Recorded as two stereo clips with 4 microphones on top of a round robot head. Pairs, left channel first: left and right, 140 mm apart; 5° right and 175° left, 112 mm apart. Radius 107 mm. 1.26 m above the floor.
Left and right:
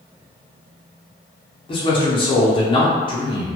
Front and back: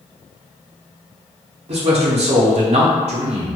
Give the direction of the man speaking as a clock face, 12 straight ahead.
7 o'clock.